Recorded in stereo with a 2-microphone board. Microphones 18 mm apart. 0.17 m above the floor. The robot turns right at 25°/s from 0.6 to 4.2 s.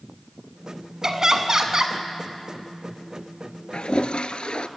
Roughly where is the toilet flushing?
Left.